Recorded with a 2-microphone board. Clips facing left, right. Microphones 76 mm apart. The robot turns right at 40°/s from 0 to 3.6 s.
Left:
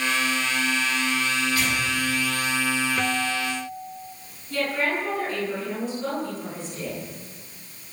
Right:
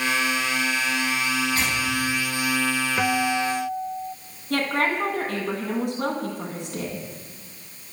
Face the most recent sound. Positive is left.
turn(degrees=-70)  # may be behind; listen again after turning